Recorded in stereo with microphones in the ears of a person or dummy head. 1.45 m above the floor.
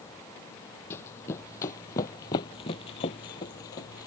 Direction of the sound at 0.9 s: 15° left (ahead or behind).